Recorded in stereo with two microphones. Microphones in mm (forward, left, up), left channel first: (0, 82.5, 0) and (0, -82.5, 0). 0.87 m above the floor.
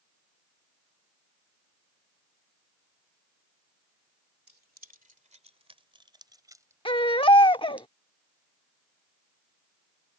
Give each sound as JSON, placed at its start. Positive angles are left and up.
{"t": 4.5, "sound": "keys jangling", "side_deg": -65}
{"t": 6.8, "sound": "a baby crying", "side_deg": 30}